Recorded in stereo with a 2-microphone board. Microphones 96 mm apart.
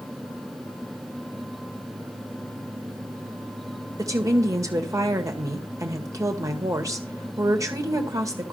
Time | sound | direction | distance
4.0 | a woman speaking | 35° right (ahead or behind) | 1.9 m